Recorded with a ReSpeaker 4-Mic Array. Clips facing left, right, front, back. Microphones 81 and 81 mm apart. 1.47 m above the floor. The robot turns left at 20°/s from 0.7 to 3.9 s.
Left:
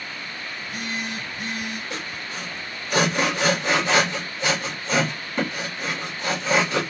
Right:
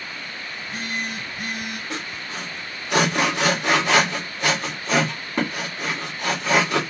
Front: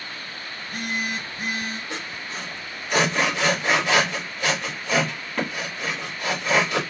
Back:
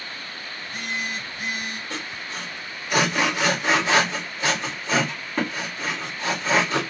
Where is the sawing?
75° right, 1.9 m; by 6.8 s 115° right, 1.9 m.